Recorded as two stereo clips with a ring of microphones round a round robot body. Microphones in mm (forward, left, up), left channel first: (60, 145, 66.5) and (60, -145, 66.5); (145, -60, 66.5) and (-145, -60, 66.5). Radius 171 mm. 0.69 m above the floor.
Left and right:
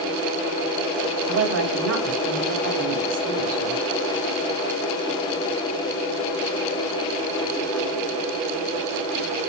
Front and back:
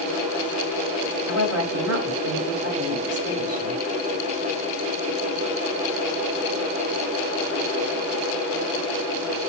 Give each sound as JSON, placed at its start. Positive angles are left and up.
{"t": 1.3, "sound": "a woman speaking", "azimuth_deg": -140, "distance_m": 4.5}